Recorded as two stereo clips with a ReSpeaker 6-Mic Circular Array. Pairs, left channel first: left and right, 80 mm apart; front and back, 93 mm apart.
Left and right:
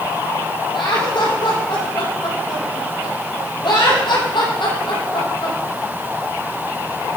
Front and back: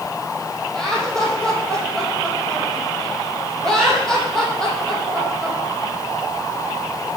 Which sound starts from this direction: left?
Laughter, at 0.7 s.